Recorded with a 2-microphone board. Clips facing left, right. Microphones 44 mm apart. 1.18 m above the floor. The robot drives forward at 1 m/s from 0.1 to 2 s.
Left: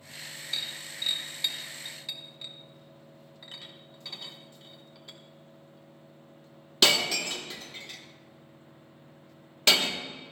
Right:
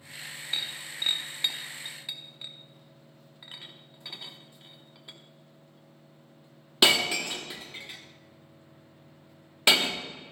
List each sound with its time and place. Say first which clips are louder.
0.5 s breaking glass: right 2 dB; 25° right (ahead or behind), 0.8 m; by 10.0 s 20° right (ahead or behind), 1.1 m